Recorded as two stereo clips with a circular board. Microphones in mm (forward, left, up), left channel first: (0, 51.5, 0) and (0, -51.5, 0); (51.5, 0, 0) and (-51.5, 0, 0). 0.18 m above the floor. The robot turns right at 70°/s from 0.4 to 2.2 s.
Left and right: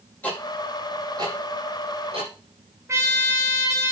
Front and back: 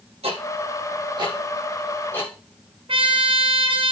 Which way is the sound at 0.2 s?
165° left.